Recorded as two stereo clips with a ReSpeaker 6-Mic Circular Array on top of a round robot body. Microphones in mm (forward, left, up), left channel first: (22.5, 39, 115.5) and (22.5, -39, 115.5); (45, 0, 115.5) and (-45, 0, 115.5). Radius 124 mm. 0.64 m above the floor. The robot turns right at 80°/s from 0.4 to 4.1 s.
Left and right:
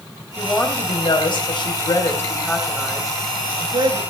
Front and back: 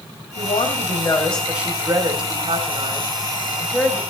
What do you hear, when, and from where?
0.4 s a woman speaking: 5° left, 2.5 m; by 4.0 s 65° right, 2.5 m